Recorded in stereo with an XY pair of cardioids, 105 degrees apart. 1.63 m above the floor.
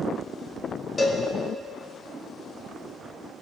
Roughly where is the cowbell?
Ahead left.